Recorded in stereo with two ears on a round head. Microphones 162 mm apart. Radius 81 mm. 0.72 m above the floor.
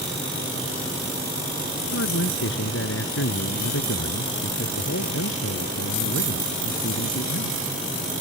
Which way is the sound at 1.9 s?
75° left (ahead or behind).